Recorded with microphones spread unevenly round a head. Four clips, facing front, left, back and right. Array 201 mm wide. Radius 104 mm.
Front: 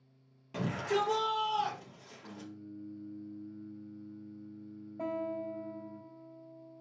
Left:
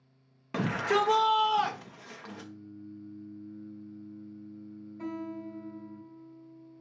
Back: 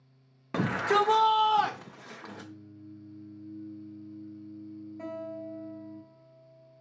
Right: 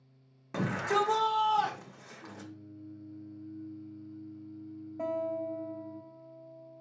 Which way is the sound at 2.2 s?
135° right.